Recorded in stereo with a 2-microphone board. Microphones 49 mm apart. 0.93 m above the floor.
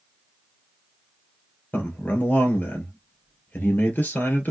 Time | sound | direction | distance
1.7 | a man speaking | 45° left (ahead or behind) | 2.5 m